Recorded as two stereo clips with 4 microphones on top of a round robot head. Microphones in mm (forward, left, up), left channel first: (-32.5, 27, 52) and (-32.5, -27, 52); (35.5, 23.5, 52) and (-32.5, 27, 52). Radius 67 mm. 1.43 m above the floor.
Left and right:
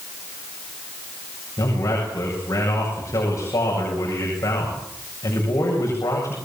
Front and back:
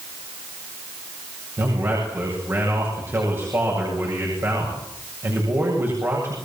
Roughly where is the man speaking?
Behind left.